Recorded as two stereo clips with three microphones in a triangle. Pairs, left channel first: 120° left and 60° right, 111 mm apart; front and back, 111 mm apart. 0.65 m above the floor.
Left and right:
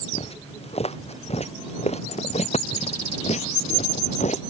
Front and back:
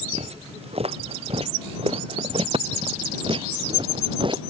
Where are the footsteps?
150° left; by 4.4 s 135° left.